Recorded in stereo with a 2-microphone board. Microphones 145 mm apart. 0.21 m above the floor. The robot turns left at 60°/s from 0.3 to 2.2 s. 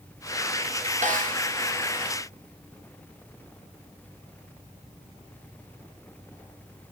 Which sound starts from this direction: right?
A snare drum, at 1.0 s.